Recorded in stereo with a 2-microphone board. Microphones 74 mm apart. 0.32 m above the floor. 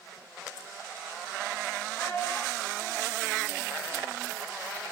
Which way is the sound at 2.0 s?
25° left (ahead or behind).